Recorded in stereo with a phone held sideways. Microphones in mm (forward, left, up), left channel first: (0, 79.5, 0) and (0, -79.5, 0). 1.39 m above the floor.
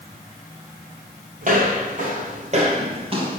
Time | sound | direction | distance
1.4 | footsteps | 55° right (ahead or behind) | 2.5 m